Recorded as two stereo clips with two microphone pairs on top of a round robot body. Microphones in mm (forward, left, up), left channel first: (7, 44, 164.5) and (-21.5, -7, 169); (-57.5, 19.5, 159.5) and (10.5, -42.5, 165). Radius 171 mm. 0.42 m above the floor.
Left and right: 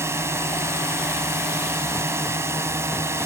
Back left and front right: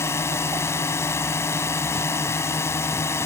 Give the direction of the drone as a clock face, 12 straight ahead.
5 o'clock.